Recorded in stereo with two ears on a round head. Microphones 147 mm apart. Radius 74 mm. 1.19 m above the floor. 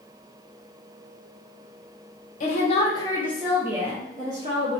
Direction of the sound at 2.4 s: 45° left (ahead or behind).